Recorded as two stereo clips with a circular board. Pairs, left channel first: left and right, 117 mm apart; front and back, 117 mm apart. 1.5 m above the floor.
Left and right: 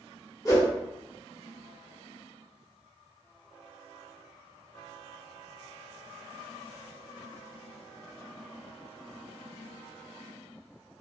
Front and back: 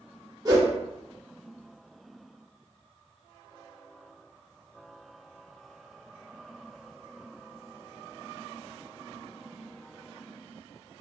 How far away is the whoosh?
About 1.3 m.